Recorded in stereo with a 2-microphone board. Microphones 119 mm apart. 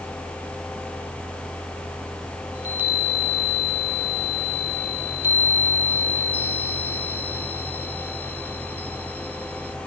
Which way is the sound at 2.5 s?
15° right (ahead or behind).